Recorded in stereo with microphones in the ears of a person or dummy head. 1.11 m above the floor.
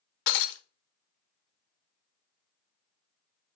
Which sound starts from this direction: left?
Breaking glass, at 0.3 s.